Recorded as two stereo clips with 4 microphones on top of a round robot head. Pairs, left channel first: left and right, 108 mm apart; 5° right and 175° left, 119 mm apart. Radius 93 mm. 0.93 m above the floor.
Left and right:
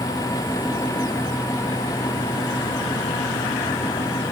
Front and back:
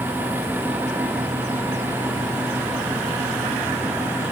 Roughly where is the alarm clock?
No alarm clock in this recording.